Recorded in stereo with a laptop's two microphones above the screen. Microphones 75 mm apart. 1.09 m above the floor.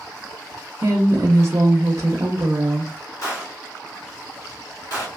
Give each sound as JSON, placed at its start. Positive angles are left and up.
{"t": 0.8, "sound": "a woman speaking", "side_deg": -40, "distance_m": 0.6}
{"t": 3.2, "sound": "a gunshot", "side_deg": 50, "distance_m": 1.4}